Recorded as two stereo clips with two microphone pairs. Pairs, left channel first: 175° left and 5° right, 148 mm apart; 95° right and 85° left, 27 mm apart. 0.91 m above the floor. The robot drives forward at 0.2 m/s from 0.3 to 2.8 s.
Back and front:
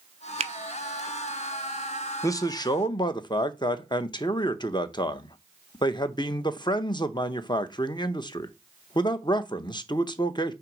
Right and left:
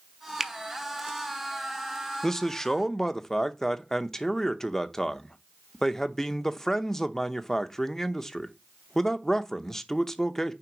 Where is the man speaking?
145° right, 0.6 m; by 10.5 s 155° right, 0.7 m.